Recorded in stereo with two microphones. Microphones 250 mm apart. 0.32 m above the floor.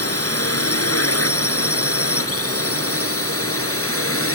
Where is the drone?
70° left (ahead or behind); by 4.3 s 60° left (ahead or behind).